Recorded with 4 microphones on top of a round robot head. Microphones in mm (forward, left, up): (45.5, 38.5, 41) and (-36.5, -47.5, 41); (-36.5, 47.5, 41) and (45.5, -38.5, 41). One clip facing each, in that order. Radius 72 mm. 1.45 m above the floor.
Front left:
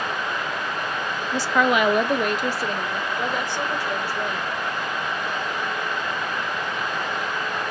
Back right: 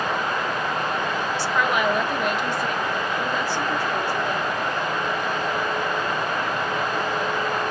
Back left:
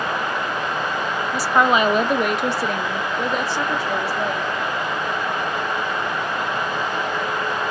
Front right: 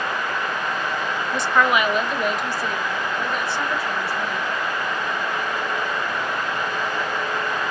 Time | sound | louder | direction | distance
1.3 | a woman speaking | front left 5 dB, back left 2 dB | 45° left | 0.6 m